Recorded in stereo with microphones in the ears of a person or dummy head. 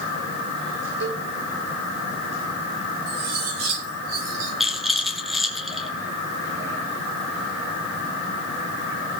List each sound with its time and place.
1.0 s a cowbell: 70° right (ahead or behind), 9.5 m
3.1 s cutlery clinking: 85° right, 8 m
4.6 s a rattle: centre (ahead or behind), 1.9 m